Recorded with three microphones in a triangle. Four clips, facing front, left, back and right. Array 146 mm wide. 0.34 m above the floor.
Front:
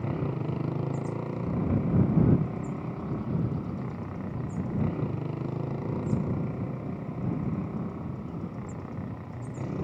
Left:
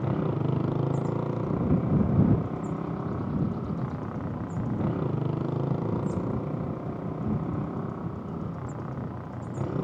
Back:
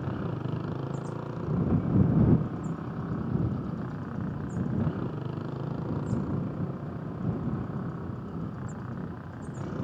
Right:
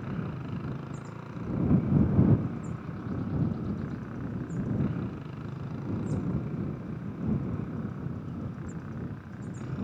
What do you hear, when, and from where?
0.0 s a motorcycle: 75° left; by 9.8 s 80° left